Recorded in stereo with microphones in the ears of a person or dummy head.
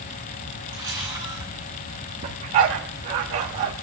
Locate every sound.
0.7 s a camera shutter: 15° right (ahead or behind), 9.5 m
2.2 s a dog barking: 25° right (ahead or behind), 1.2 m